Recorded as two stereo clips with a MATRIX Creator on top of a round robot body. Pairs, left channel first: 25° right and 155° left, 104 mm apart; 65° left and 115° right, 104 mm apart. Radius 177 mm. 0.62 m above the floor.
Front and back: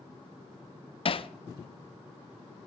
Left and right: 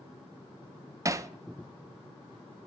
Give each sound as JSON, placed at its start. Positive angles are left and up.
{"t": 1.1, "sound": "hammering", "azimuth_deg": -55, "distance_m": 0.7}